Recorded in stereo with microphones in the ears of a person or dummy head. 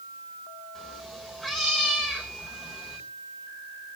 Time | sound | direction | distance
0.8 | a cat meowing | centre (ahead or behind) | 3.5 m